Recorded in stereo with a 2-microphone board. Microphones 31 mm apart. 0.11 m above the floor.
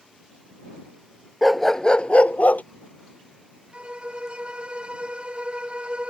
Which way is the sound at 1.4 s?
Centre (ahead or behind).